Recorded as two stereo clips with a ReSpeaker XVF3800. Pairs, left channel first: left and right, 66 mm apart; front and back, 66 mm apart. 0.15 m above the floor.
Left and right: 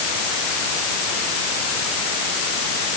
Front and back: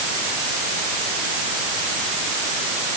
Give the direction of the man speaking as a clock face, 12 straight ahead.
No man speaking in this recording.